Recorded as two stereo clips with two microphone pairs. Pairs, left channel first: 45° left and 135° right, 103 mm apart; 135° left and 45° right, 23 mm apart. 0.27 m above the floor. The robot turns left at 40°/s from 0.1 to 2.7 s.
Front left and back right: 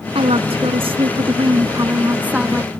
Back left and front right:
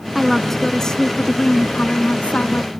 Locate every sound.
0.1 s a woman speaking: 125° right; by 2.7 s 135° left